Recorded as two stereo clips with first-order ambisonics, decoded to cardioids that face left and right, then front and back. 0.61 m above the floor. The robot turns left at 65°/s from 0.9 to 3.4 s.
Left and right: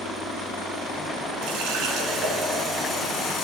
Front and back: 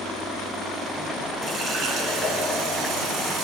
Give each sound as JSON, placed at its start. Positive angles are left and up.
{"t": 1.4, "sound": "a running tap", "azimuth_deg": -105, "distance_m": 4.0}